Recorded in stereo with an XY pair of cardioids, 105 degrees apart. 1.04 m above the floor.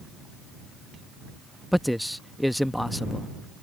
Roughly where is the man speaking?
Ahead.